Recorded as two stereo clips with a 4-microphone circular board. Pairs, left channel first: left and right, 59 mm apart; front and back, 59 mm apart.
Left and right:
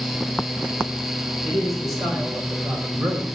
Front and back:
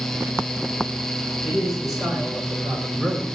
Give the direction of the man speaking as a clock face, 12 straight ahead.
3 o'clock.